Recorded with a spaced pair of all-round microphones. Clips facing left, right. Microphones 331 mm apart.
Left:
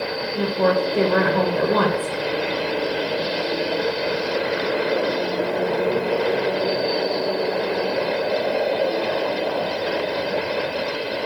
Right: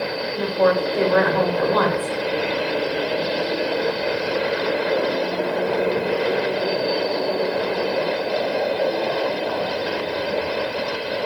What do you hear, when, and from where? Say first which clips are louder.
0.3 s a woman speaking: right 1 dB; 40° left (ahead or behind), 1.0 m